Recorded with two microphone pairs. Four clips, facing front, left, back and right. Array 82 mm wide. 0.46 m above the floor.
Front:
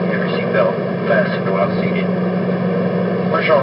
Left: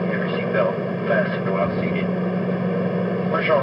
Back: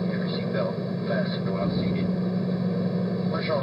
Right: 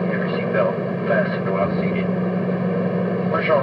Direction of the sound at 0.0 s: Straight ahead.